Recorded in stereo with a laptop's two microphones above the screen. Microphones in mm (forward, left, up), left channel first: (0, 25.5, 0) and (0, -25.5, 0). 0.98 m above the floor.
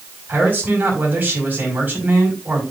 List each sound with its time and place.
0.3 s a man speaking: 40° right (ahead or behind), 5.5 m